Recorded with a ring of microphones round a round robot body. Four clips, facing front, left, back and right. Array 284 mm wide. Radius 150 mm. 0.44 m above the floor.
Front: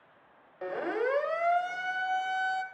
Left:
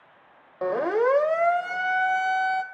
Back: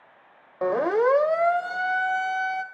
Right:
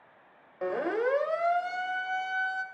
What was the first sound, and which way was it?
A siren, 155° left.